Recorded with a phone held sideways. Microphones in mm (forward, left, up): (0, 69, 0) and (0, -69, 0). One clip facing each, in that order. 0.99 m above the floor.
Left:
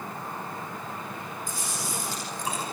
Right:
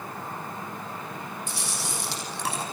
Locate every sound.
1.5 s chewing: 80° right, 6.5 m